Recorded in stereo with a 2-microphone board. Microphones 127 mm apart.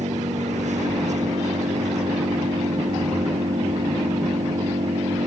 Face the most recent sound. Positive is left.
turn(degrees=-70)  # may be behind; listen again after turning